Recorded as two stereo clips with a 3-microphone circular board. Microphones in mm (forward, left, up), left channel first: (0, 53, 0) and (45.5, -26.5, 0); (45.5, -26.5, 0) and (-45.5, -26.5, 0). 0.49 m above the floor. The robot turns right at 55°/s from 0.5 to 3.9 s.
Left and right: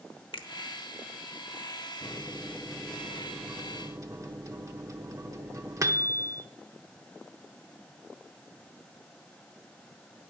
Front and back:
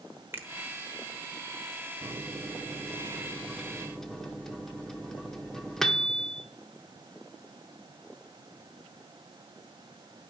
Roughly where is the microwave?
Behind.